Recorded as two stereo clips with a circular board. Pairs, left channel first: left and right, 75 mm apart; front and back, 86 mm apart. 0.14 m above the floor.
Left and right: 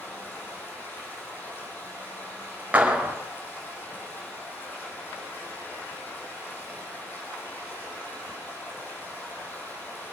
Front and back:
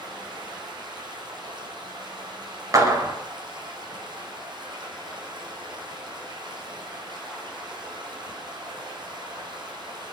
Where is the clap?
150° right, 2 m.